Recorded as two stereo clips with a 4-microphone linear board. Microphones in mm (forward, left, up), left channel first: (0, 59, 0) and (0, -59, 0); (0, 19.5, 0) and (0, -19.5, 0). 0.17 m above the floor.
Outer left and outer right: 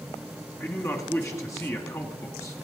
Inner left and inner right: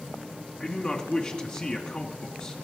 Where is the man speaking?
25° left (ahead or behind), 1.6 m.